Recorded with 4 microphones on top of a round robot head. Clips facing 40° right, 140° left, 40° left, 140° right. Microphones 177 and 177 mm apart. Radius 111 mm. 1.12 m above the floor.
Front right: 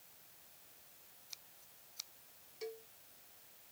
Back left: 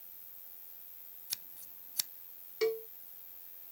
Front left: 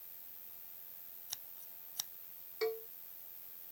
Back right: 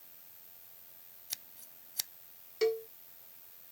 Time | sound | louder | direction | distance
0.0 | an insect | even, back right 1 dB | 115° left | ?
1.3 | scissors | back left 3 dB, back right 2 dB | 150° left | ?
2.6 | a cowbell | back left 15 dB, back right 7 dB | 160° left | ?